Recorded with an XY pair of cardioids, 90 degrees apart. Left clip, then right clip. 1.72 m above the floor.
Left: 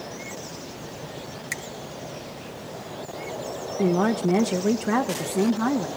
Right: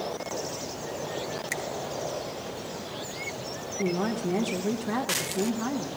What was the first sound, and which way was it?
A finger snap, 10° left.